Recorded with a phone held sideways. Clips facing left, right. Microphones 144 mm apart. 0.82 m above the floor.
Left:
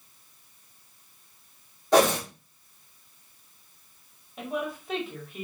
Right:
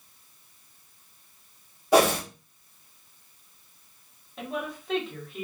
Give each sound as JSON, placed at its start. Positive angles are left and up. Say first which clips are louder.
{"t": 1.9, "sound": "a whoosh", "louder": "even", "side_deg": -10, "distance_m": 1.3}
{"t": 4.4, "sound": "a woman speaking", "louder": "left 2 dB", "side_deg": 5, "distance_m": 1.4}